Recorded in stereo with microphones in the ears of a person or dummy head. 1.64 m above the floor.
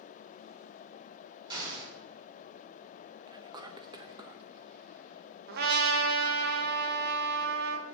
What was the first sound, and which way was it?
An explosion, 25° right (ahead or behind).